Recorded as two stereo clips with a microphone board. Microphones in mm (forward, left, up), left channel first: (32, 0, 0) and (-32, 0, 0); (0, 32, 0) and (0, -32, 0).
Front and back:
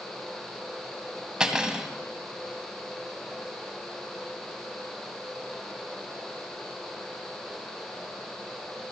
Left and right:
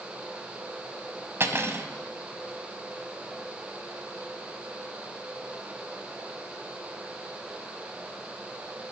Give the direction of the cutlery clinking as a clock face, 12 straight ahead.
4 o'clock.